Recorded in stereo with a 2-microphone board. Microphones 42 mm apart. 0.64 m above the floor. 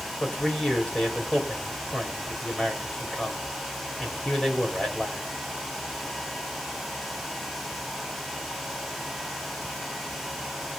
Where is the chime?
I don't hear a chime.